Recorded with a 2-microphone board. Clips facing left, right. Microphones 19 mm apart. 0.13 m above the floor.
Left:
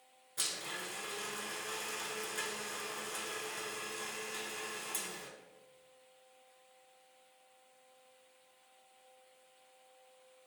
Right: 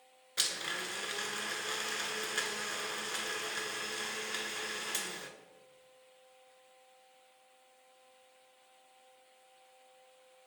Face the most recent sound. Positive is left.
turn(degrees=-50)  # may be behind; listen again after turning